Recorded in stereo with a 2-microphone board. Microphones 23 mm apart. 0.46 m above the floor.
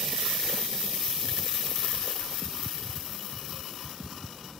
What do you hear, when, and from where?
2.2 s a whoosh: 20° left (ahead or behind), 5 m